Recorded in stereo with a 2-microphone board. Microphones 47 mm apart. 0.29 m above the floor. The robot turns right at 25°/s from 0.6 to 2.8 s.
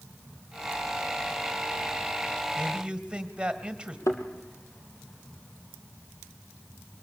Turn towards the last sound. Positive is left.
turn(degrees=80)